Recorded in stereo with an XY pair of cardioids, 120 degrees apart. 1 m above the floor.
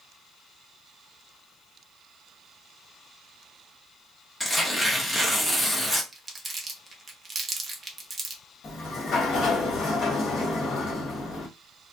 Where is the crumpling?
25° right, 0.8 m.